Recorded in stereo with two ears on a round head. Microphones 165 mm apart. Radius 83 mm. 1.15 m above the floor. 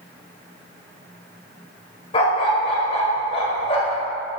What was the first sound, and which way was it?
A dog barking, 30° left (ahead or behind).